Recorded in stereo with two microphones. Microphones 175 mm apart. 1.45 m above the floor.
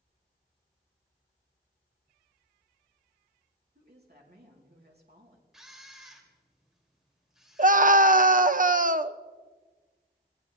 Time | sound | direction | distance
3.8 | a woman speaking | 60° right (ahead or behind) | 3 m
5.5 | a camera shutter | centre (ahead or behind) | 2.5 m
7.6 | a scream | 50° right (ahead or behind) | 0.7 m